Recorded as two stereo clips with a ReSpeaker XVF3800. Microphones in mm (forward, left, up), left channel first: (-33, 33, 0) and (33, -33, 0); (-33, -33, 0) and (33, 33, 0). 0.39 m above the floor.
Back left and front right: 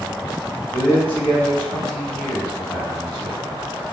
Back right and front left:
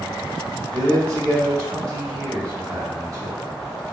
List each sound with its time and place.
0.7 s a man speaking: 75° left, 1.5 m